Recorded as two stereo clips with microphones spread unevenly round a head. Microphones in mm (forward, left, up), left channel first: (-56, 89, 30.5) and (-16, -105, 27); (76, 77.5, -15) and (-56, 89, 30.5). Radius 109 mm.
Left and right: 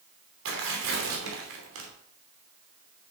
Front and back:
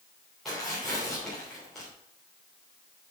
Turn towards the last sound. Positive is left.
turn(degrees=-90)